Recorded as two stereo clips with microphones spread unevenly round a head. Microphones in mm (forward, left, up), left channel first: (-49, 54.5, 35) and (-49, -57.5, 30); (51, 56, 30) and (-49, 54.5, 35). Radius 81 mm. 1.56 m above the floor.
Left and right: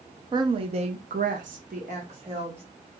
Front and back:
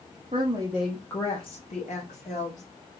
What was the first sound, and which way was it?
A woman speaking, 140° right.